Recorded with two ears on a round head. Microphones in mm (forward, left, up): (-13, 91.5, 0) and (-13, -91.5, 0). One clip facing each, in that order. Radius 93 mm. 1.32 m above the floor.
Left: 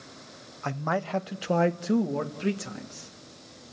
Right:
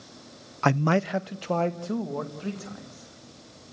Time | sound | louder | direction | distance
0.6 | a man speaking | right 7 dB | 70° right (ahead or behind) | 0.5 m